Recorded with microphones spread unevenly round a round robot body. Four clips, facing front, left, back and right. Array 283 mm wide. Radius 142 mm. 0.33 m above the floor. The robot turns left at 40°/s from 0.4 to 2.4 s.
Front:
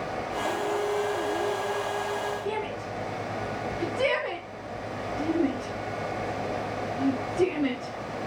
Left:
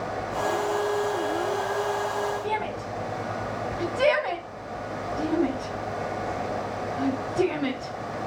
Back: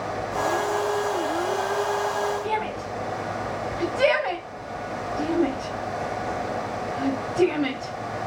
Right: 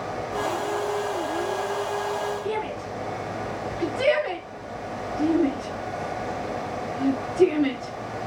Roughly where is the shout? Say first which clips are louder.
Even, back 4 dB; behind left.